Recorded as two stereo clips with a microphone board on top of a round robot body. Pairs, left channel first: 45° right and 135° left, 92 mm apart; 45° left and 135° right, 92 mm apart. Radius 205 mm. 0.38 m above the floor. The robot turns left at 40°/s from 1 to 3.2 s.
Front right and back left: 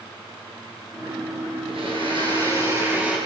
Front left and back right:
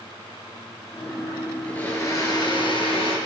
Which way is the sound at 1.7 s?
120° left.